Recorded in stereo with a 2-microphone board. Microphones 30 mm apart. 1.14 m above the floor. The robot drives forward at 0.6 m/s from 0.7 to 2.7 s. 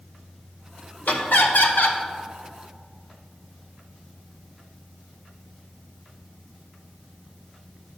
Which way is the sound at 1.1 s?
60° left (ahead or behind).